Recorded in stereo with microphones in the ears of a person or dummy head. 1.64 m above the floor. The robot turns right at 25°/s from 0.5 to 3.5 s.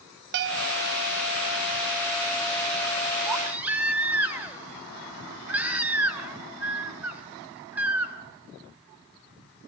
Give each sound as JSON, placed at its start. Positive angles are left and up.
{"t": 0.3, "sound": "a bell", "side_deg": -55, "distance_m": 2.0}
{"t": 3.2, "sound": "a baby crying", "side_deg": -15, "distance_m": 1.8}